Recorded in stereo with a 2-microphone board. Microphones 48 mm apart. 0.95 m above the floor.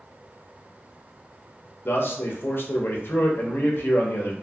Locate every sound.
1.9 s a man speaking: 50° left (ahead or behind), 0.6 m